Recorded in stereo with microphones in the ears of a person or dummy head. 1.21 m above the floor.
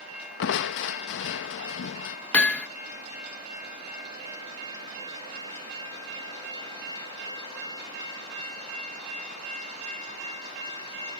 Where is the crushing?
65° left (ahead or behind).